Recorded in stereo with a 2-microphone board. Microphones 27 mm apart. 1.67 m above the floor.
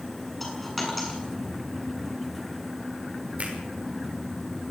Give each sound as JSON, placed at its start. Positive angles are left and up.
{"t": 0.4, "sound": "a dropped coin", "side_deg": 5, "distance_m": 8.0}
{"t": 3.4, "sound": "a finger snap", "side_deg": -55, "distance_m": 5.5}